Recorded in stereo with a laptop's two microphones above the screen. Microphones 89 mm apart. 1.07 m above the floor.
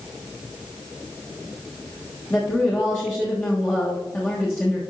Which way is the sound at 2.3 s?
20° left (ahead or behind).